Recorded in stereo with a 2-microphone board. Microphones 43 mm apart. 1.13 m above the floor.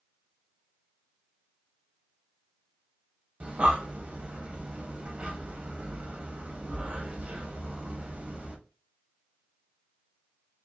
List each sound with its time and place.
3.4 s breathing: 30° right (ahead or behind), 1.1 m